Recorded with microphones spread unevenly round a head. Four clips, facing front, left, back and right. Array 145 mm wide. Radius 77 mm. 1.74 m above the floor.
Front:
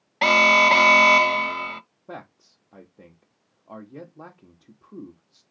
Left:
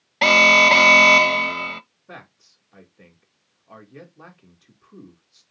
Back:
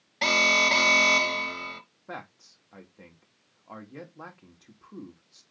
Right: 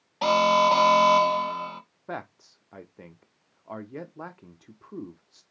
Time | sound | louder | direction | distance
0.2 | an alarm | left 3 dB, front 8 dB | 85° left | 0.5 m
2.1 | a man speaking | right 8 dB, front 1 dB | 80° right | 0.9 m